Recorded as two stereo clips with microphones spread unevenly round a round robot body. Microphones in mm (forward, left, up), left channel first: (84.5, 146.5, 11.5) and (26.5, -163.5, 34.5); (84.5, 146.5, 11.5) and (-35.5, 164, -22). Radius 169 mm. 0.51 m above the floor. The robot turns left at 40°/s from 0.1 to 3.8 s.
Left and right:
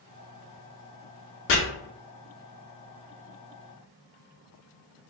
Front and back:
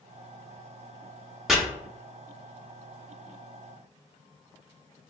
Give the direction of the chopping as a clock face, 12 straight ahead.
9 o'clock.